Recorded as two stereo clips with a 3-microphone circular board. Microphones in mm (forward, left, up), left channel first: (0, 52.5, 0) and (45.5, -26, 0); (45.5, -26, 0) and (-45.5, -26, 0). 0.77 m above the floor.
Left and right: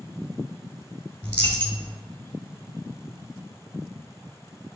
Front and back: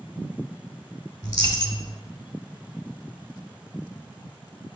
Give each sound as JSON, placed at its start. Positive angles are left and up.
{"t": 1.2, "sound": "a dropped coin", "azimuth_deg": 50, "distance_m": 1.8}